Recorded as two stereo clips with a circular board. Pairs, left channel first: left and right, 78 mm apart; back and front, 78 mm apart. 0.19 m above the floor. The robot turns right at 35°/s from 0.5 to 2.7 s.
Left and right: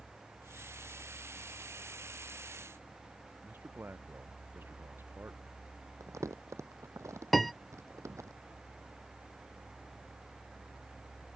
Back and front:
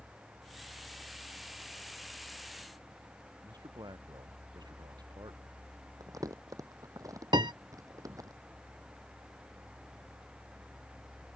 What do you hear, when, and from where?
3.4 s a man speaking: 30° right
6.0 s crumpling: 40° right
7.3 s a piano: straight ahead